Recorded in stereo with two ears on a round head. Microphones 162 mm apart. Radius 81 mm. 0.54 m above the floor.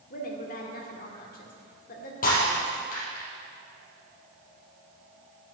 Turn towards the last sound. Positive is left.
turn(degrees=50)  # may be behind; listen again after turning